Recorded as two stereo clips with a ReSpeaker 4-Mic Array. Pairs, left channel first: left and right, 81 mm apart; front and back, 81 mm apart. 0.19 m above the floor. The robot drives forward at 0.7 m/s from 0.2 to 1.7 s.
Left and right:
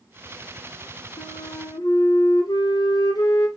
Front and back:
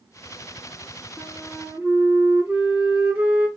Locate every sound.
1.2 s a flute: 95° left, 0.8 m; by 3.5 s 120° left, 0.9 m